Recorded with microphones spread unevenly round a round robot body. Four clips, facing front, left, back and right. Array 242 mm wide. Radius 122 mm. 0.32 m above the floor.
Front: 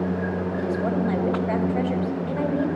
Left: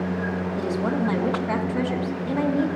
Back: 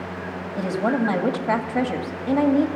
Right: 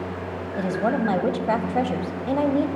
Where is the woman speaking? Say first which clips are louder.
Right 3 dB, back 4 dB; 140° right, 2.0 m.